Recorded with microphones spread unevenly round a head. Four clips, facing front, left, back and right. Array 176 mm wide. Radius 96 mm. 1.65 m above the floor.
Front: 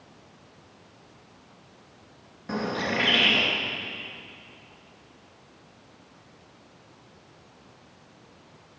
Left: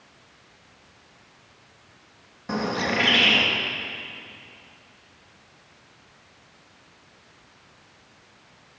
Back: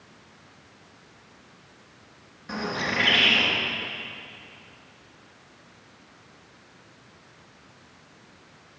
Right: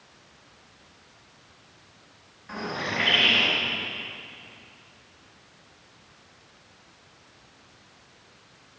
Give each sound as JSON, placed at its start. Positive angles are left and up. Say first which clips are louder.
{"t": 2.5, "sound": "a bird", "louder": "left 6 dB, front 1 dB", "azimuth_deg": 60, "distance_m": 3.5}